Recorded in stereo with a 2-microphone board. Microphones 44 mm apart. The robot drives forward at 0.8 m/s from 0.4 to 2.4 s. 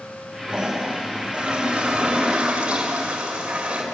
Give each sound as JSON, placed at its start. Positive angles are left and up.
{"t": 0.5, "sound": "a toilet flushing", "side_deg": -15, "distance_m": 5.0}